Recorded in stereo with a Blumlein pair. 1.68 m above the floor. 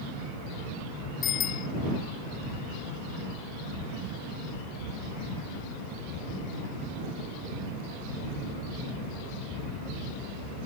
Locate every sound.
1.2 s a bicycle bell: 30° left